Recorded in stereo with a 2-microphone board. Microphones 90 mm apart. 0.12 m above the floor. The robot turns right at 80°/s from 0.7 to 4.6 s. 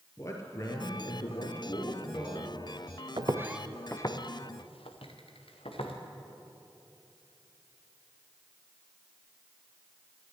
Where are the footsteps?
55° right (ahead or behind), 0.6 m; by 5.9 s 85° left, 1.9 m.